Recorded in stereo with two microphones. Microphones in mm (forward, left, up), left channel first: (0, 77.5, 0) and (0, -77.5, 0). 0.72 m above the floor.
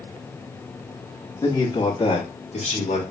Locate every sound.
1.4 s a man speaking: 20° left (ahead or behind), 1.3 m; by 3.0 s 50° left (ahead or behind), 1.6 m